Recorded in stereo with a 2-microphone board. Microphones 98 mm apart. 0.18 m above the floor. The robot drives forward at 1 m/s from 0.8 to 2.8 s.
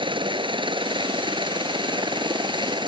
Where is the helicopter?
55° right (ahead or behind).